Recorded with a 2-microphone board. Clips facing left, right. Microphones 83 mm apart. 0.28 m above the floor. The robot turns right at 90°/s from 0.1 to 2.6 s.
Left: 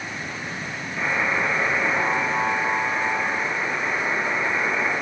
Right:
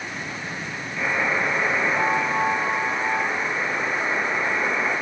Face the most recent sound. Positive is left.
turn(degrees=-50)